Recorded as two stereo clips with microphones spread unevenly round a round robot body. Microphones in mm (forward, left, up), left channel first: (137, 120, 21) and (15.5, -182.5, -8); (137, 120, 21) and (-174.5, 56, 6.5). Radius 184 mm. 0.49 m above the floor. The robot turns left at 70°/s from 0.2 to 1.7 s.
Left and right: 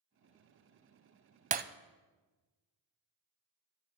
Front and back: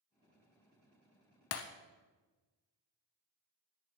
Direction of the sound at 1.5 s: 40° right.